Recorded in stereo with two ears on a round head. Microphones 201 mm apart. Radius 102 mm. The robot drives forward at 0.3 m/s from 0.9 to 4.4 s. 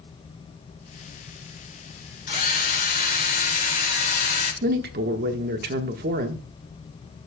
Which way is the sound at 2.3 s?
50° left (ahead or behind).